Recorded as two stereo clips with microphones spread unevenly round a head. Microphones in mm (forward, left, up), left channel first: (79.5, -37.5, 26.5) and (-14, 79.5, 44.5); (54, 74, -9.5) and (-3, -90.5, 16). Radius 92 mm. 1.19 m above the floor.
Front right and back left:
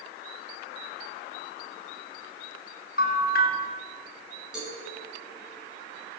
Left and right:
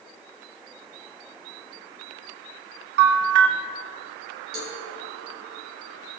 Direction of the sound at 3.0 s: 90° right.